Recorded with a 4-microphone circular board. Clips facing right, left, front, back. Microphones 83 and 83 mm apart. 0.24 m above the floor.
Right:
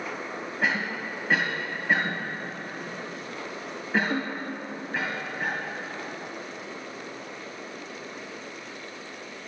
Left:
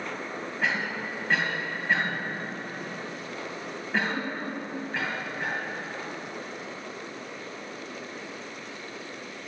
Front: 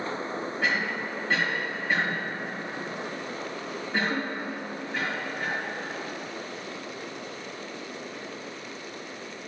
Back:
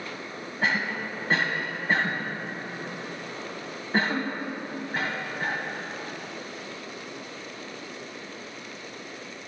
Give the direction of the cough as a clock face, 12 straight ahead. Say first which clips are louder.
Right 2 dB, back 2 dB; 6 o'clock.